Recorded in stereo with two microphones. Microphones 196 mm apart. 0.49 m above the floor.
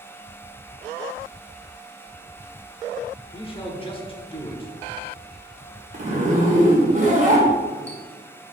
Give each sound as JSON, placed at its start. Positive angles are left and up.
{"t": 3.3, "sound": "a man speaking", "side_deg": 25, "distance_m": 1.2}
{"t": 5.9, "sound": "a zipper", "side_deg": -40, "distance_m": 1.7}